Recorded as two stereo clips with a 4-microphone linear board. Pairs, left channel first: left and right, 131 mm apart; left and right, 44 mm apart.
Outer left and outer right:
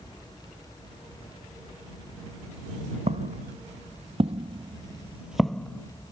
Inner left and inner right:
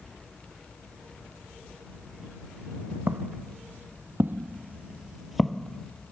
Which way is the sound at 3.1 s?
55° right (ahead or behind).